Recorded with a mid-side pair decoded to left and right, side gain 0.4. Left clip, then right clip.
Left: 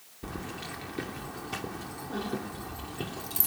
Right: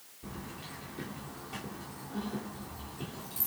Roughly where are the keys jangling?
Ahead left.